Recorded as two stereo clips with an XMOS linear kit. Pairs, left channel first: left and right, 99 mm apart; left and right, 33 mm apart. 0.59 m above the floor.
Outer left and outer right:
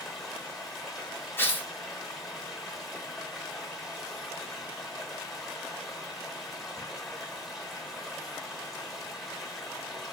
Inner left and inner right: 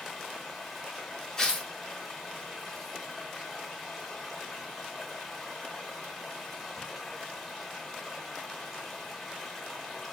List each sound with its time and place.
0.0 s running water: centre (ahead or behind), 0.9 m
1.4 s tearing paper: 20° left (ahead or behind), 0.6 m